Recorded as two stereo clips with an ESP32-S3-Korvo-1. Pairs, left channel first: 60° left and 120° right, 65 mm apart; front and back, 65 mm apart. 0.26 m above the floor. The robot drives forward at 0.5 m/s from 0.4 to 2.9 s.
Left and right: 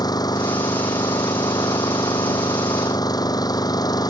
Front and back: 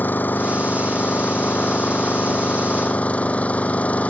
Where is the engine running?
60° left; by 4.1 s 70° left.